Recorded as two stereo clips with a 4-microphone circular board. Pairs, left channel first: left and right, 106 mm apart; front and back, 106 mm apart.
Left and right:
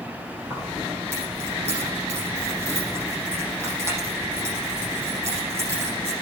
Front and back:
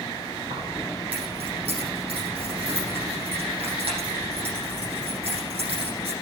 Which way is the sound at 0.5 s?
155° right.